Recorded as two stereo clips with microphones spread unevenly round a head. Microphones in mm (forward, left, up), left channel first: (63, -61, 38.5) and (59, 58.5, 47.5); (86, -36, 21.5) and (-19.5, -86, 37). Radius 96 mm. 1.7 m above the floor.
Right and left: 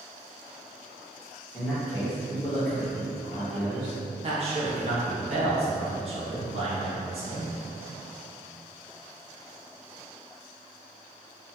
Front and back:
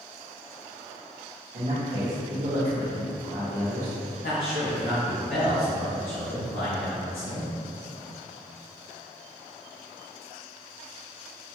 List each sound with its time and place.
1.5 s a man speaking: 175° right, 1.1 m
4.2 s a man speaking: 65° left, 1.0 m